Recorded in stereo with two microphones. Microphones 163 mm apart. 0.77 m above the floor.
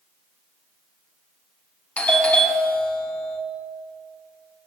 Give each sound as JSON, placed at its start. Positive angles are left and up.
{"t": 2.0, "sound": "a doorbell", "side_deg": 5, "distance_m": 0.9}